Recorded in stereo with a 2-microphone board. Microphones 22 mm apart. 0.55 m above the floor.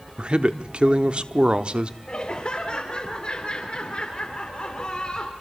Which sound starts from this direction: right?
A man speaking, at 0.2 s.